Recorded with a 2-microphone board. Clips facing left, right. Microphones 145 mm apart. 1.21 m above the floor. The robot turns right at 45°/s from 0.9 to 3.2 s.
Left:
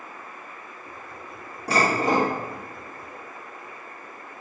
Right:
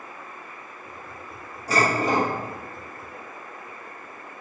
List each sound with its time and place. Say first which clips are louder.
1.7 s dishes clattering: left 1 dB; 65° left (ahead or behind), 1.5 m; by 2.3 s 40° left (ahead or behind), 1.5 m